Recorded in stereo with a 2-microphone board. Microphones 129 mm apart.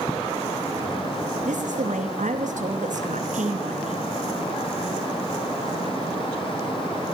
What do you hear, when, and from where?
1.4 s a woman speaking: 70° right (ahead or behind), 2.5 m